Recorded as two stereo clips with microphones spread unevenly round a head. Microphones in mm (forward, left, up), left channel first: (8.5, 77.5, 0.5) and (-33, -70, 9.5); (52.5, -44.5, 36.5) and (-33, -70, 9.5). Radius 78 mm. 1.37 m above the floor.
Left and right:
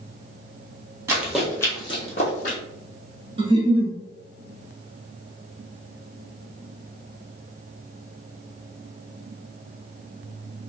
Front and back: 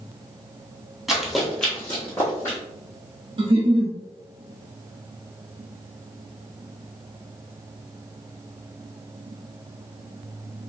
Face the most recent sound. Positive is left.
turn(degrees=-150)